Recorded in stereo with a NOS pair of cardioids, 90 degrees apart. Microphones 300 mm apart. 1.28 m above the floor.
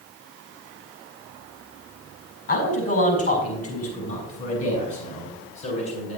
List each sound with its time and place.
2.5 s a man speaking: 45° left, 5 m; by 6.2 s 60° left, 7.5 m